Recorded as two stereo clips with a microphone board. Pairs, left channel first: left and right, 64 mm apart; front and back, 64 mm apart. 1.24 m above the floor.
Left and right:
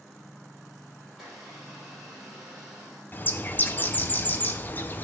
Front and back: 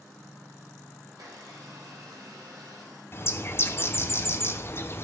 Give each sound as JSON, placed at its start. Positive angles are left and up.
{"t": 1.1, "sound": "a blender", "azimuth_deg": -165, "distance_m": 5.0}
{"t": 3.1, "sound": "a bird", "azimuth_deg": 40, "distance_m": 0.7}